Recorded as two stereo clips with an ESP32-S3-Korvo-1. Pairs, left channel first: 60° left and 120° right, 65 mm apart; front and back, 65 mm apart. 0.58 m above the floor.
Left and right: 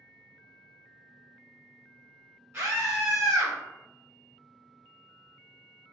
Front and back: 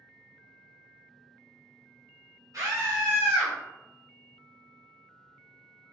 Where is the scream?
165° right, 1.4 m; by 3.5 s 80° right, 1.0 m.